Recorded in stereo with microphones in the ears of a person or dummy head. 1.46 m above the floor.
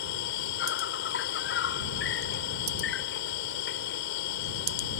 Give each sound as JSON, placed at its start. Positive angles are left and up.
{"t": 0.0, "sound": "an insect", "side_deg": 50}